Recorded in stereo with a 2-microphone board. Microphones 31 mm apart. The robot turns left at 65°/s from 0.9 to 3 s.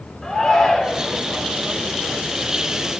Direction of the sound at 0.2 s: 15° left (ahead or behind).